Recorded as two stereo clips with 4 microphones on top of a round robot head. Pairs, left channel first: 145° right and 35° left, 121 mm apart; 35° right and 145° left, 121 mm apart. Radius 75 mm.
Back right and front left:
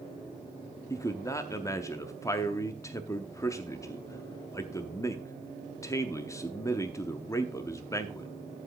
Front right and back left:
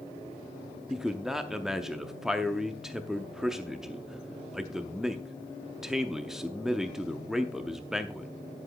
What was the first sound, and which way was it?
A man speaking, 135° right.